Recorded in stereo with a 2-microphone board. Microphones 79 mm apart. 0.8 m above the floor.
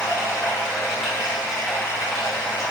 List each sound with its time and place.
0.0 s running water: centre (ahead or behind), 1.4 m